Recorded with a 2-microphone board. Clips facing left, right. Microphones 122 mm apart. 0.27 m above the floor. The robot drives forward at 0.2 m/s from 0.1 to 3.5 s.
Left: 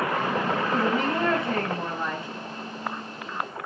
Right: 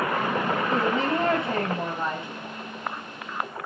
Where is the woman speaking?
25° right (ahead or behind), 1.9 m.